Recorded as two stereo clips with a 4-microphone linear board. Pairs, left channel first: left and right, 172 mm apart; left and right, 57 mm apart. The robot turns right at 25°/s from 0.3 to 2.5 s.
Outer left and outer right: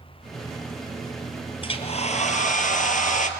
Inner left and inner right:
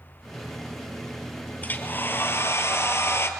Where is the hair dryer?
35° left (ahead or behind), 1.5 m; by 3.3 s 50° left (ahead or behind), 1.5 m.